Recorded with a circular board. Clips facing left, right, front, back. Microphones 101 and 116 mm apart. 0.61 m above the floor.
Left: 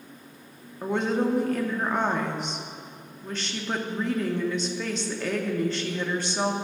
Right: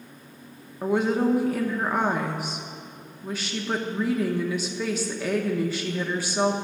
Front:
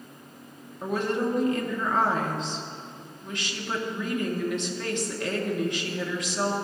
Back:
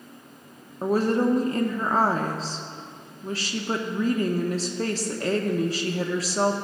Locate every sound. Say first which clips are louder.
0.8 s a woman speaking: right 3 dB, back 5 dB; 170° right, 0.6 m